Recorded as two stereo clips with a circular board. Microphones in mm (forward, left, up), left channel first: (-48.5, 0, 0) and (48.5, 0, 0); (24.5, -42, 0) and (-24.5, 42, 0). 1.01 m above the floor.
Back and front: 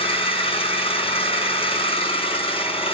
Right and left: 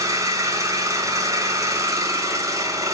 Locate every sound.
0.0 s an engine running: straight behind, 6 m